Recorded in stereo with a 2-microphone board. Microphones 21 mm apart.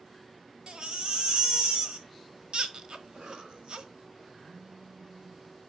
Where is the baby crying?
60° right (ahead or behind), 1.3 m.